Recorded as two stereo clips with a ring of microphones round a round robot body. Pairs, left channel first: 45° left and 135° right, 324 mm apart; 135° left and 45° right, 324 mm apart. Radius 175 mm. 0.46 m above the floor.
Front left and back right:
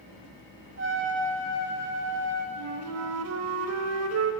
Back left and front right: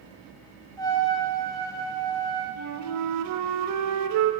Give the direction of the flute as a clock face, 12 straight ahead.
3 o'clock.